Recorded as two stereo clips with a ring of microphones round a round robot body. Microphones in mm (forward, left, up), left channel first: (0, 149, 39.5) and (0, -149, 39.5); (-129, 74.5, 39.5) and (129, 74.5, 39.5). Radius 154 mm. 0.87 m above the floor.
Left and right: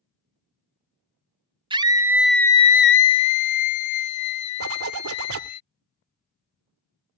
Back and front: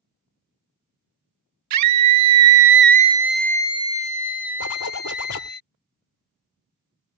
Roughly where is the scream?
Ahead.